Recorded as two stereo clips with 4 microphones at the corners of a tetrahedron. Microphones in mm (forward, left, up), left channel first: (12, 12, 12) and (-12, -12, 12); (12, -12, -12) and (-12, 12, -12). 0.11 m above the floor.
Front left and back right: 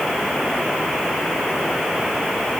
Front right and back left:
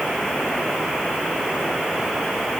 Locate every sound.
Only background noise.